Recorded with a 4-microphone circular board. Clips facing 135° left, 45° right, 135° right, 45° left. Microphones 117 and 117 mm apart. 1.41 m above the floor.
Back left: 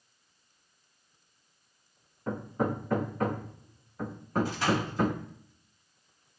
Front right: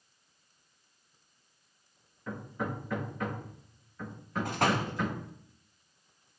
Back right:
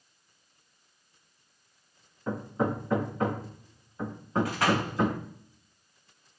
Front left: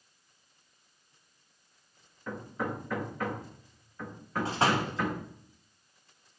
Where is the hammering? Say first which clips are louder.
Back left 6 dB, back right 6 dB; 170° left, 1.0 m.